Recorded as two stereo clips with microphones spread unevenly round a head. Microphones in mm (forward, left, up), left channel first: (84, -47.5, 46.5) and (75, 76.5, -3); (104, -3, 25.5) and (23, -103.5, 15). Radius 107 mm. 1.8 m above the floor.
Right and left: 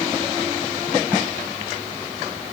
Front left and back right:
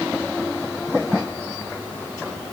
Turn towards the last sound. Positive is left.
No sound to turn to.